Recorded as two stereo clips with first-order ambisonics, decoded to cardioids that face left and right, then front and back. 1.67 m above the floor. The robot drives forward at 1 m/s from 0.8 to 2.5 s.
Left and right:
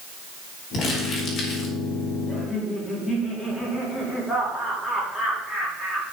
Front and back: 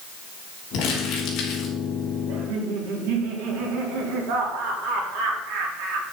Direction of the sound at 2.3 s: 170° left.